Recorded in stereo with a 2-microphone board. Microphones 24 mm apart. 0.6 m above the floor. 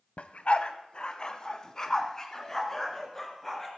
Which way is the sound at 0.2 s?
60° left (ahead or behind).